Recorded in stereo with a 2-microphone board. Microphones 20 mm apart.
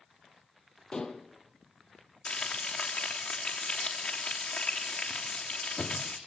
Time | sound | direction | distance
0.9 | dishes clattering | 30° left (ahead or behind) | 2.5 m
2.2 | frying | 80° left | 3.5 m